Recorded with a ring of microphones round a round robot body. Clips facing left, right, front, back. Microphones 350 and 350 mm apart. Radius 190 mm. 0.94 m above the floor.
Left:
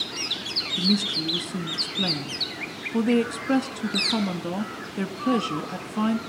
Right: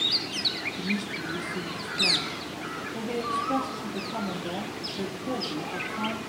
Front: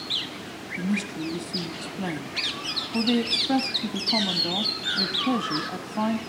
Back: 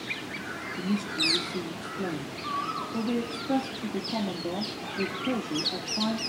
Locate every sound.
0.8 s a woman speaking: 60° left, 1.2 m